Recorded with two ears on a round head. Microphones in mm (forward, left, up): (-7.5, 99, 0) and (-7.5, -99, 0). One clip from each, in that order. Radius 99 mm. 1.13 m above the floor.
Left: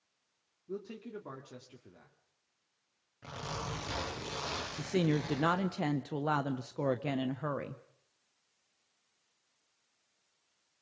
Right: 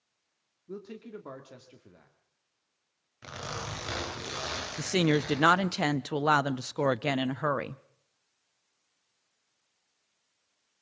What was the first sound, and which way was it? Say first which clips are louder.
A man speaking: even; 15° right (ahead or behind).